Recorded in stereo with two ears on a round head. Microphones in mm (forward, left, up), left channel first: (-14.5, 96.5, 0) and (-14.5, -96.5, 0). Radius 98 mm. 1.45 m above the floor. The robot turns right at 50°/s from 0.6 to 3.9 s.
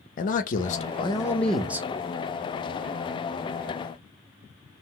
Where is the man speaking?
130° left, 0.6 m; by 1.9 s 165° right, 0.6 m.